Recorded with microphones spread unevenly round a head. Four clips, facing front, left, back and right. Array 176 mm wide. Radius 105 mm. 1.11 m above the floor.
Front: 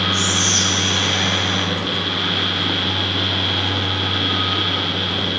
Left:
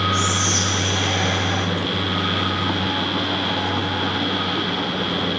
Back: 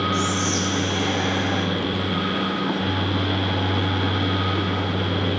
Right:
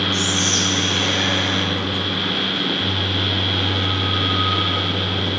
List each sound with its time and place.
0.1 s whispering: 85° right, 5 m